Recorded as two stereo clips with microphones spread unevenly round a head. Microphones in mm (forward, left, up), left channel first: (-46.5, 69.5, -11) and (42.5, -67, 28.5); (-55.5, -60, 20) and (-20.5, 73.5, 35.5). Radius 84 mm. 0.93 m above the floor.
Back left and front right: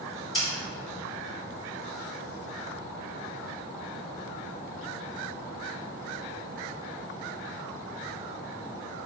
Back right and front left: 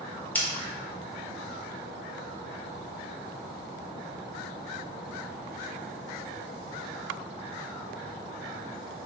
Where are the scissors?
Straight behind, 2 m.